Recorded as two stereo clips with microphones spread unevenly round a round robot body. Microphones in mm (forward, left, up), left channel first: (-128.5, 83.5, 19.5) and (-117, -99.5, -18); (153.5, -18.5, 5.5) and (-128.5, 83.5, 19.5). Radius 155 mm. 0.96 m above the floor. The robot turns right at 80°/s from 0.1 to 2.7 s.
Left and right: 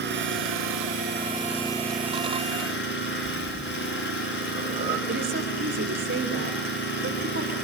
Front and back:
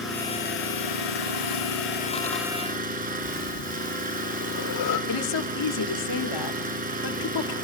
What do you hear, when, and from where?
0.0 s an engine running: 110° right, 5.5 m; by 7.7 s 95° left, 5.5 m
3.2 s breathing: 15° right, 3.5 m
5.1 s a woman speaking: 40° right, 2.5 m